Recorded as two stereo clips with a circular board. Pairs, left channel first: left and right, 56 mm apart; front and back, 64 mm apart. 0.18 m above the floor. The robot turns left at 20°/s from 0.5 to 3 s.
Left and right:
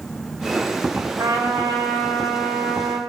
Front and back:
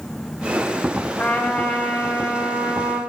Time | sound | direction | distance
1.2 | a trumpet | 80° right | 4.5 m